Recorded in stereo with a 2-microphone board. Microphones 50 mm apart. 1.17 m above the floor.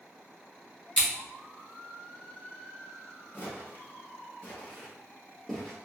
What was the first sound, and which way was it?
Scissors, 5° left (ahead or behind).